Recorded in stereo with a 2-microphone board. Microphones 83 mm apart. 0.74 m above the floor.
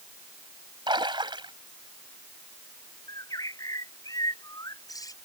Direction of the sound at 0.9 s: 75° right (ahead or behind).